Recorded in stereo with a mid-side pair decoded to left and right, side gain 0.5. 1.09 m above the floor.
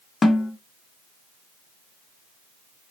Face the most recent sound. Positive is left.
turn(degrees=25)